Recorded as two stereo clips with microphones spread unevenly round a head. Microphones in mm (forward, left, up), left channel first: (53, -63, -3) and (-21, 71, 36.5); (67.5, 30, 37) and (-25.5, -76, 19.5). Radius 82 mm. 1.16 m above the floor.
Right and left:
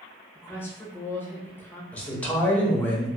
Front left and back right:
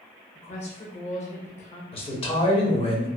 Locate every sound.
0.3 s a woman speaking: 10° left, 0.8 m
1.9 s a man speaking: 5° left, 0.9 m